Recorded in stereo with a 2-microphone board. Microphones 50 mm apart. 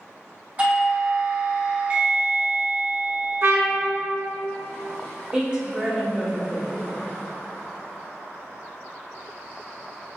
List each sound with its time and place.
0.6 s a doorbell: 30° right (ahead or behind), 1.1 m
3.4 s a trumpet: 50° right (ahead or behind), 0.5 m
5.3 s a woman speaking: 20° right (ahead or behind), 0.9 m